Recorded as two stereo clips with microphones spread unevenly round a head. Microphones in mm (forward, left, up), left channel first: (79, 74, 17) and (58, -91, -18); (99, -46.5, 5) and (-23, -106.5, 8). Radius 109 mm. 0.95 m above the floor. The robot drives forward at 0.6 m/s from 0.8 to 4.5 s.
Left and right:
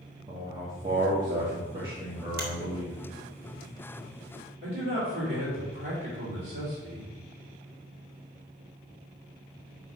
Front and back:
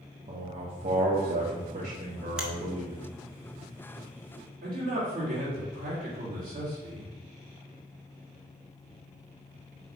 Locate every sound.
0.3 s a man speaking: 150° right, 0.9 m; by 3.0 s 170° right, 2 m
2.4 s a finger snap: 70° right, 1.6 m
4.6 s a man speaking: 155° right, 2.5 m